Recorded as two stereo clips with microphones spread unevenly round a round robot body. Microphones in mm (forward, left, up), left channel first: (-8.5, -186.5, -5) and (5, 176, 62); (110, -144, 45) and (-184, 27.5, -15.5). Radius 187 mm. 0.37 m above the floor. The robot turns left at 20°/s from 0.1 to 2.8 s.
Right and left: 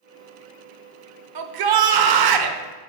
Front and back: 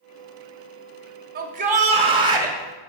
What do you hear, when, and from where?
1.4 s a shout: 105° left, 1.1 m; by 2.6 s 80° left, 1.1 m